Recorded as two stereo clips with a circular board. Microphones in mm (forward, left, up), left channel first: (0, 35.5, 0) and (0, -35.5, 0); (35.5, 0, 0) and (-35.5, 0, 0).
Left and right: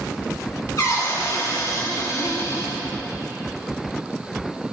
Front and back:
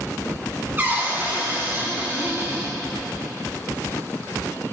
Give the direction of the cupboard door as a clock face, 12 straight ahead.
8 o'clock.